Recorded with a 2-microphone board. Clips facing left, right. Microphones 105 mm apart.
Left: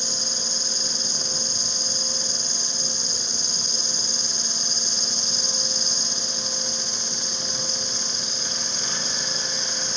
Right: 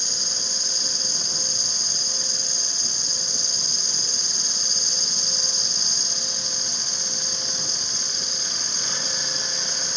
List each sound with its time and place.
0.0 s an insect: 55° right (ahead or behind), 8 m